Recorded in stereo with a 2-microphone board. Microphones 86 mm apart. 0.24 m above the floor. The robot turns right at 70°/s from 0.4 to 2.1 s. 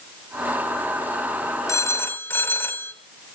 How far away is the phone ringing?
About 1.2 m.